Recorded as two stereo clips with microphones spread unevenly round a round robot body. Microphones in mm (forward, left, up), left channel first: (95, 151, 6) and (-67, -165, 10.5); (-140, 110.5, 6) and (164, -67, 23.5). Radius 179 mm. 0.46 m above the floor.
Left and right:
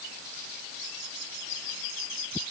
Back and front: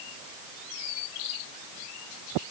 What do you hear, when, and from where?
Only background noise.